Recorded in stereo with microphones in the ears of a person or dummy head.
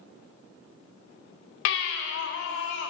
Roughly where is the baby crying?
Left.